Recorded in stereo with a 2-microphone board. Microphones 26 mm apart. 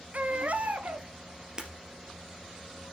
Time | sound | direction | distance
0.1 | a baby crying | 65° right (ahead or behind) | 0.9 m
1.6 | breaking glass | 30° right (ahead or behind) | 2 m